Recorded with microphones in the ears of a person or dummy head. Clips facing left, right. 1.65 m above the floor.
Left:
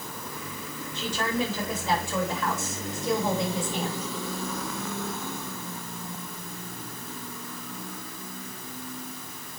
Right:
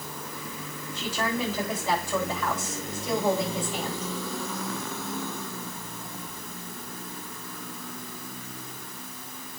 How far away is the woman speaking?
About 8.5 m.